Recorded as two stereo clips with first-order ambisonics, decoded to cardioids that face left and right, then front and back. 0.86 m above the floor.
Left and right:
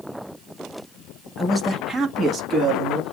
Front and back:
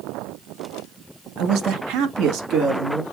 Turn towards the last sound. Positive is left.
turn(degrees=-135)